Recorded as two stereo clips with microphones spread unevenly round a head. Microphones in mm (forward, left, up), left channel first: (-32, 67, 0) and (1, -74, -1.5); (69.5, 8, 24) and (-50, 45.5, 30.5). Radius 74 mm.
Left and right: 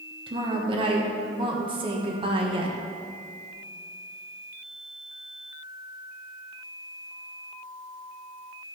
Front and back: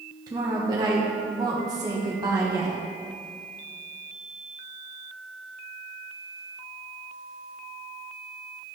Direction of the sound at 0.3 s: 130° right.